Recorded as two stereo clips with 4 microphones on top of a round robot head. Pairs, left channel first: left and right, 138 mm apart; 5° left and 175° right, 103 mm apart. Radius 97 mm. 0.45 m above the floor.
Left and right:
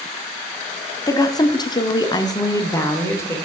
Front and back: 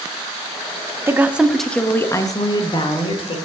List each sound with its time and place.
1.1 s a woman speaking: 140° left, 1.1 m; by 3.4 s 20° left, 1.8 m